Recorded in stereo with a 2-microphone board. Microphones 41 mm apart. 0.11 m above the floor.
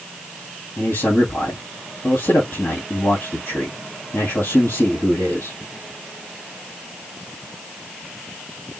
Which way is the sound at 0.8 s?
65° left (ahead or behind).